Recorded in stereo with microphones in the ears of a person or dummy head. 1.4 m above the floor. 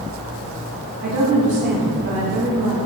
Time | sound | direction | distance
1.0 | a woman speaking | 50° right (ahead or behind) | 2.5 m